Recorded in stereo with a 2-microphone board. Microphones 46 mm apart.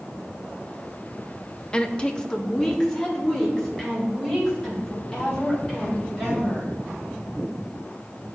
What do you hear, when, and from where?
1.7 s a woman speaking: 20° left (ahead or behind), 0.5 m; by 6.7 s 5° left (ahead or behind), 6.5 m